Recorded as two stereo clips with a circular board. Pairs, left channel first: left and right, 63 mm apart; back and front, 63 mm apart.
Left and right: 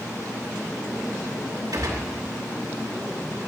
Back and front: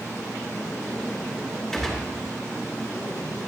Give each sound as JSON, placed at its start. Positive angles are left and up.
{"t": 1.7, "sound": "a gunshot", "azimuth_deg": -95, "distance_m": 3.0}